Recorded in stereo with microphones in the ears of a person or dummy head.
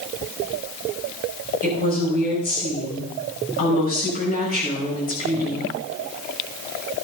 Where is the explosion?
No explosion in this recording.